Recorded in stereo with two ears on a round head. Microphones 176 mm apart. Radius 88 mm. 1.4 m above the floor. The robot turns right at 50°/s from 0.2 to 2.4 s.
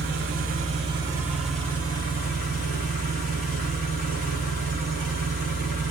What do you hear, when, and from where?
0.0 s an engine running: 65° right, 1.3 m; by 5.9 s 45° left, 1.3 m